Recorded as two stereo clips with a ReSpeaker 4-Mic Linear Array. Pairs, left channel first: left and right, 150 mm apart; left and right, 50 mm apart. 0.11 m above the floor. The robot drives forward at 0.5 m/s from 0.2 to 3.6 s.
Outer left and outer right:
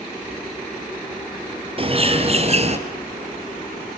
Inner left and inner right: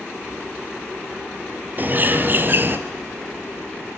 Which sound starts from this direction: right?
A bird, at 1.8 s.